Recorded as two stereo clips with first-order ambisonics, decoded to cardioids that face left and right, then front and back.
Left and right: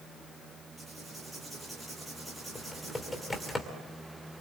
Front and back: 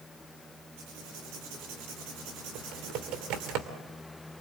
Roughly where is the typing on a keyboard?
Behind.